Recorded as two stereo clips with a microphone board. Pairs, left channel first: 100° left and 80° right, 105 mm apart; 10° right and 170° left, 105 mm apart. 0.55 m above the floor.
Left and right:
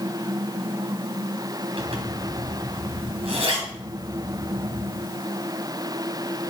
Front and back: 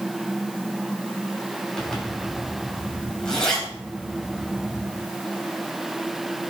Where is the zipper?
95° right, 3.5 m.